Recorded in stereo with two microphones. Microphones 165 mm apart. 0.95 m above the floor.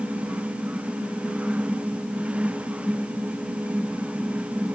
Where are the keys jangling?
No keys jangling in this recording.